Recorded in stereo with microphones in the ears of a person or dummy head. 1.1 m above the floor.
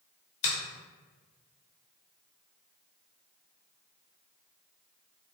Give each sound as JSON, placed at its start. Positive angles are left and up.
{"t": 0.4, "sound": "a finger snap", "side_deg": 35, "distance_m": 1.0}